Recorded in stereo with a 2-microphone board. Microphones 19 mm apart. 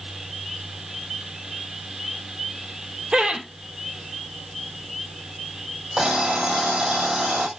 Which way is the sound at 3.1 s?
50° right (ahead or behind).